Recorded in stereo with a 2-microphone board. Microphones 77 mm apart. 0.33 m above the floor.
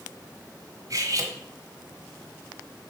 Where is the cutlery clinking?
50° right (ahead or behind), 1.8 m.